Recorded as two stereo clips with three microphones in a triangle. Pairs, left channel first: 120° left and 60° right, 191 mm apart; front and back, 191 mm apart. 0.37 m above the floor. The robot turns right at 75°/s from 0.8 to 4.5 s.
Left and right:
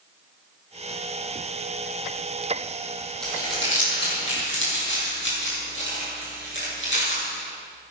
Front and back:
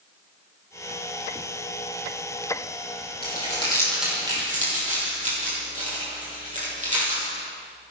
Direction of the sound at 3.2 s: 35° left.